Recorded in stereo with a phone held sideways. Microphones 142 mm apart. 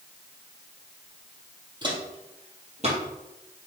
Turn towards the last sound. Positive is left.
turn(degrees=-55)  # may be behind; listen again after turning